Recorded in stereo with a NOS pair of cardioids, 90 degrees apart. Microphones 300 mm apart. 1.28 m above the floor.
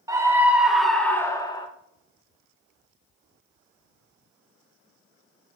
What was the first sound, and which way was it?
A scream, 10° right.